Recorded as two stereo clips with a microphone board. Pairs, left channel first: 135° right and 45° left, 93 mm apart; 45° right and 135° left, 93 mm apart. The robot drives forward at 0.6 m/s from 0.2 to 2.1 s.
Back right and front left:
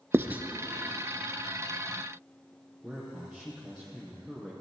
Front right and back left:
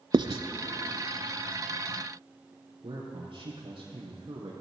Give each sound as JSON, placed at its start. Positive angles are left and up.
{"t": 0.1, "sound": "writing", "azimuth_deg": 110, "distance_m": 0.5}
{"t": 2.8, "sound": "a man speaking", "azimuth_deg": 140, "distance_m": 3.5}